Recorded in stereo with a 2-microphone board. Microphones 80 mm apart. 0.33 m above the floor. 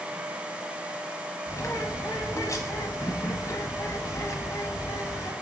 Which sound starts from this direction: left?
A bird, at 1.5 s.